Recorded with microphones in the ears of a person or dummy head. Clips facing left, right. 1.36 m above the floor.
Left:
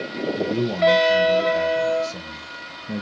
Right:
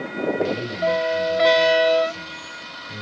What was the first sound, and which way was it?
A man speaking, 80° left.